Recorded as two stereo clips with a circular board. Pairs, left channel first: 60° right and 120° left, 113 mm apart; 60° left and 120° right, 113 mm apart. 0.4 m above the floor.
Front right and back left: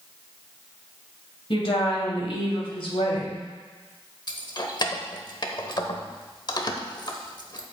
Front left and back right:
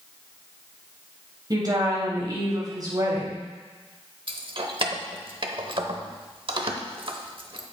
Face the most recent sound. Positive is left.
turn(degrees=-100)